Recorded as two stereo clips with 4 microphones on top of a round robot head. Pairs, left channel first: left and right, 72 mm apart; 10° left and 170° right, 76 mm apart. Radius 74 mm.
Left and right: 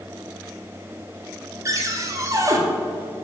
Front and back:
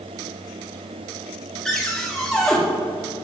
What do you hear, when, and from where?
1.6 s a cupboard door: 75° right, 1.6 m